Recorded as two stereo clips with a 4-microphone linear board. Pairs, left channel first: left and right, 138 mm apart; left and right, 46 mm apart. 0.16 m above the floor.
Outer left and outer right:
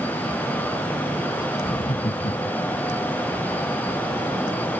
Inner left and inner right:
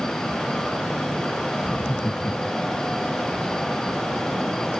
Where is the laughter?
30° left (ahead or behind); by 2.8 s 55° left (ahead or behind).